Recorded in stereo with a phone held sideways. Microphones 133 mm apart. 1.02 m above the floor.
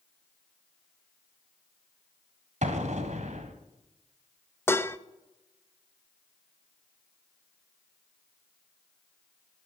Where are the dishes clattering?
20° left (ahead or behind), 0.6 m.